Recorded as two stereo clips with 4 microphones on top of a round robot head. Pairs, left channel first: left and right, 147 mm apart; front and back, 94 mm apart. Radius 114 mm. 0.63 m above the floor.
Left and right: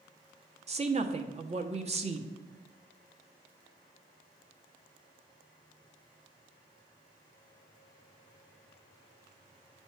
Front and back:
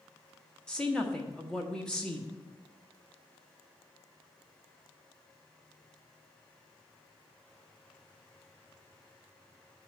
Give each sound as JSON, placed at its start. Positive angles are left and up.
{"t": 0.7, "sound": "a woman speaking", "azimuth_deg": -80, "distance_m": 1.1}